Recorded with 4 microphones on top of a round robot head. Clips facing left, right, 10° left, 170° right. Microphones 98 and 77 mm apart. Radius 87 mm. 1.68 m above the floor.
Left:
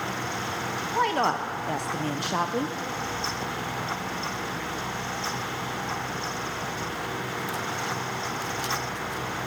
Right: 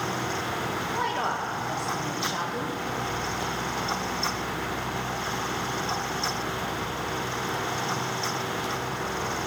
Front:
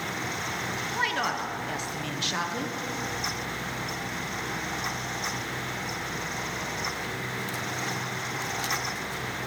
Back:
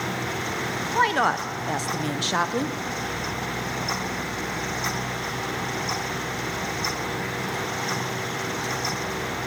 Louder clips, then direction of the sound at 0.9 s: Left 6 dB, back 8 dB; 140° left.